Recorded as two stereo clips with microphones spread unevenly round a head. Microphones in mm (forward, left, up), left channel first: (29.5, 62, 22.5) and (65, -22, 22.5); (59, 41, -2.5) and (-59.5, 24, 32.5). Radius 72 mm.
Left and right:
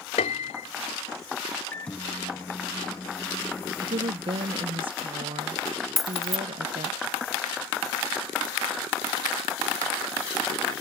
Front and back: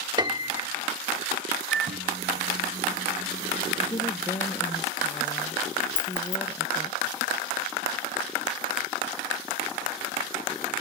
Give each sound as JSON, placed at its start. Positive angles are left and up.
{"t": 0.2, "sound": "a piano", "azimuth_deg": 130}
{"t": 1.7, "sound": "a microwave", "azimuth_deg": -165}
{"t": 3.8, "sound": "a woman speaking", "azimuth_deg": -55}
{"t": 6.0, "sound": "keys jangling", "azimuth_deg": 25}